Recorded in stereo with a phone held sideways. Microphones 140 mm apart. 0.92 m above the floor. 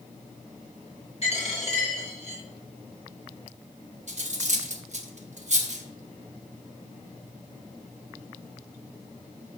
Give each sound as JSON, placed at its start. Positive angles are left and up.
{"t": 1.2, "sound": "a dropped coin", "side_deg": 50, "distance_m": 1.9}
{"t": 4.1, "sound": "cutlery clinking", "side_deg": -55, "distance_m": 0.6}